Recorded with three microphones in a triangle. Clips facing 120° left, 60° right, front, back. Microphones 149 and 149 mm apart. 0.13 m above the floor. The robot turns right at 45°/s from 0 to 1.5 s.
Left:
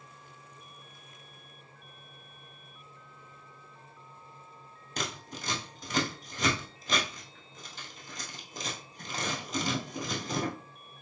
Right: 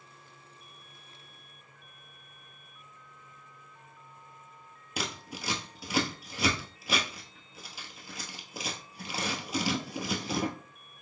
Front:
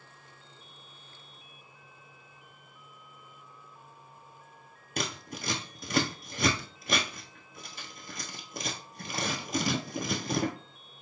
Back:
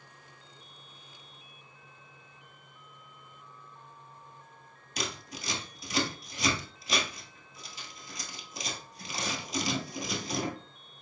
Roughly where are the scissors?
Ahead.